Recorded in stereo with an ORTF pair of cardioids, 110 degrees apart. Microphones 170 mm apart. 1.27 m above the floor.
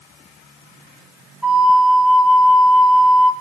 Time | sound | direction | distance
1.4 | a flute | 5° right | 2.5 m